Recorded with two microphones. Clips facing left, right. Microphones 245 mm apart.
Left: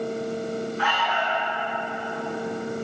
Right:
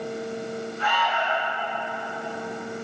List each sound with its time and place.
0.8 s an alarm: 80° left, 9 m